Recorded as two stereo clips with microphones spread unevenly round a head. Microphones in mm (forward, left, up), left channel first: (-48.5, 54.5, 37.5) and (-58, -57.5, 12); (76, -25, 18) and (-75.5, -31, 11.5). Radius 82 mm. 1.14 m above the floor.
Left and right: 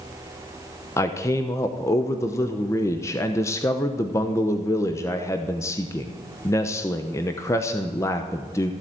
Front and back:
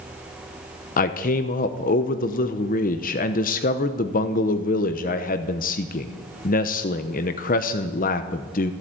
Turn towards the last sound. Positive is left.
turn(degrees=10)